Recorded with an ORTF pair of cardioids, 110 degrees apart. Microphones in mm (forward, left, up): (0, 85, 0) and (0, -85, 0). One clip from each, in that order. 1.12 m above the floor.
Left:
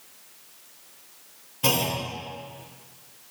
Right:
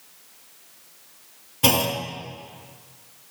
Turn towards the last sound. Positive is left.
turn(degrees=-35)